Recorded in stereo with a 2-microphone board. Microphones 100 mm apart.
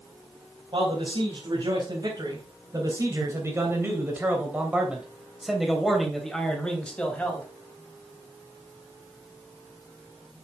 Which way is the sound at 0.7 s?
55° right (ahead or behind).